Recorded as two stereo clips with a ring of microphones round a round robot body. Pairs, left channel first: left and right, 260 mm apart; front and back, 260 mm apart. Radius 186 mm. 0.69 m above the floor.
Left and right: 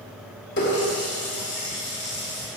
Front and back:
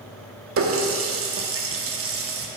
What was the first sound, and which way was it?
A running tap, 145° left.